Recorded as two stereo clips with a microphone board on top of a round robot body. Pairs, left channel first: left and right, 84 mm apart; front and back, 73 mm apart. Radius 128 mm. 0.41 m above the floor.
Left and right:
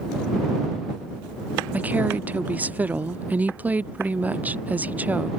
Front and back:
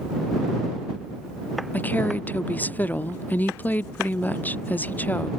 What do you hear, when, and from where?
1.7 s a woman speaking: 40° right